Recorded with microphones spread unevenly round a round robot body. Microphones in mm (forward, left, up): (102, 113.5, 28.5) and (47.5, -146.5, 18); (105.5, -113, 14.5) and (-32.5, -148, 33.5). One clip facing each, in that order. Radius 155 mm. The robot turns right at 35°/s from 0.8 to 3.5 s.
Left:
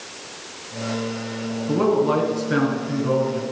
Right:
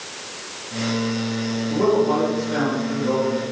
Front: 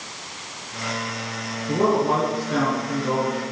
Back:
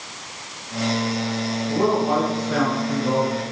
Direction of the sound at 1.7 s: 70° left.